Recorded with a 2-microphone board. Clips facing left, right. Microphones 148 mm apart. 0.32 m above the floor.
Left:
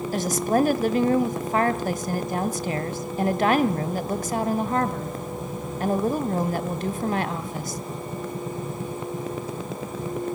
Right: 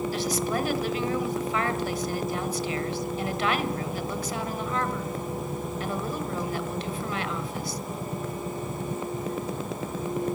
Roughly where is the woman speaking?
Left.